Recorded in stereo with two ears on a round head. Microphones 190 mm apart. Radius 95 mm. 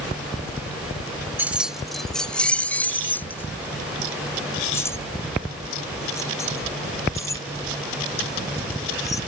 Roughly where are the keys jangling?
Centre.